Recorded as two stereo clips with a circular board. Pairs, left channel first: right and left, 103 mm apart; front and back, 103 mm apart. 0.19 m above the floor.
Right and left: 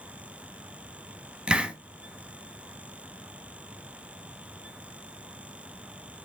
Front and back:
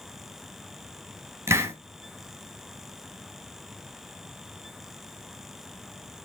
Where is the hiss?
160° left, 1.6 m.